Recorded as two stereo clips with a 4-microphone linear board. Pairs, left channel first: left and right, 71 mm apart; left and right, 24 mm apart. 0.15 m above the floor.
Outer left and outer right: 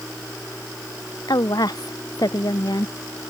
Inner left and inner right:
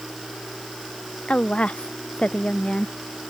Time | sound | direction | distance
1.3 | a woman speaking | 65° left (ahead or behind) | ?